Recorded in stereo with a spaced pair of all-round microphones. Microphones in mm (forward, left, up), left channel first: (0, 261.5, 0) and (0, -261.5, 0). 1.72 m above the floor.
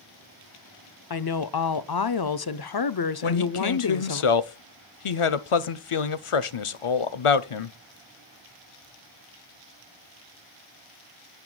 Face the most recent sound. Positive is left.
turn(degrees=70)  # may be behind; listen again after turning